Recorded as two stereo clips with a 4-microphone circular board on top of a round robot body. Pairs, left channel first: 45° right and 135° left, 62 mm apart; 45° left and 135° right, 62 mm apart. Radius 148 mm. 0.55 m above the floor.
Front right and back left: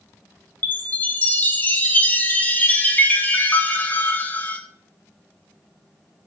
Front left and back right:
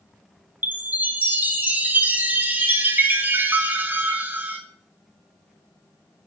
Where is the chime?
90° right, 0.6 m.